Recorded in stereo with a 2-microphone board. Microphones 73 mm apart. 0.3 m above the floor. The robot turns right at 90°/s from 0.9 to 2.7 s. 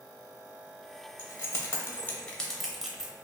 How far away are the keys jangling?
About 0.7 m.